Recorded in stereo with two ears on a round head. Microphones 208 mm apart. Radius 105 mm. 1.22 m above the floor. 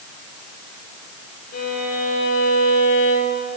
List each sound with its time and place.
1.5 s a violin: 40° left (ahead or behind), 5.5 m